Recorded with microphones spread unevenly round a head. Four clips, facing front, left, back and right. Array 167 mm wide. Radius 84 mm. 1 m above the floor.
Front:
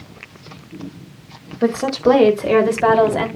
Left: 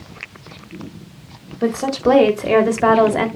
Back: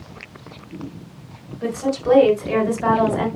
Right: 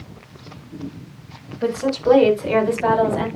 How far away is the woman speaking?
About 4 m.